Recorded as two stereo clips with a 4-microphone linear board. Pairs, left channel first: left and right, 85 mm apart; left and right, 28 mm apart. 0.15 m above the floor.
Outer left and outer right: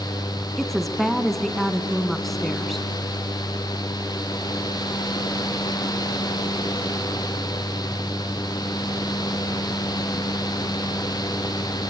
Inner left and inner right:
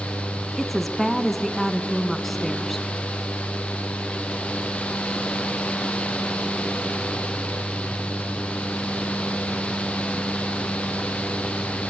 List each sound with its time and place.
0.6 s a woman speaking: 5° left (ahead or behind), 1.4 m